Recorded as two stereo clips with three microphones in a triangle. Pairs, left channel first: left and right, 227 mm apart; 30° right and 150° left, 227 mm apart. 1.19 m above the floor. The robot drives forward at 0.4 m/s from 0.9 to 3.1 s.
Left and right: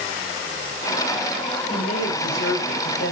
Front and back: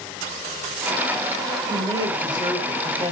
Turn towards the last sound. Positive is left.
turn(degrees=85)